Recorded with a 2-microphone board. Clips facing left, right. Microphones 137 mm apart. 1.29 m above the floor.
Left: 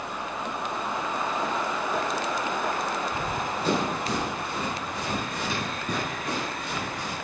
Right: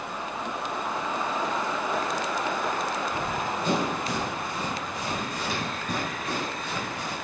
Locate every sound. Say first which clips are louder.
3.1 s running footsteps: even; 40° left (ahead or behind), 2 m; by 7.1 s 20° left (ahead or behind), 5 m